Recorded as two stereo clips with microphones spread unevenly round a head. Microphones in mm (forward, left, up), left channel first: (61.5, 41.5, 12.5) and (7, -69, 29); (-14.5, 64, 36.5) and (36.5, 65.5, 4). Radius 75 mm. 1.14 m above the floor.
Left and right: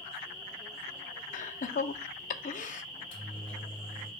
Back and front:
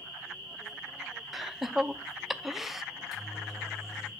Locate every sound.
1.3 s laughter: 75° left, 0.6 m
2.9 s a microwave: 75° left, 2.5 m